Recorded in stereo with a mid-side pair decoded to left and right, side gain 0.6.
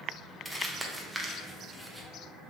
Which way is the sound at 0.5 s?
10° right.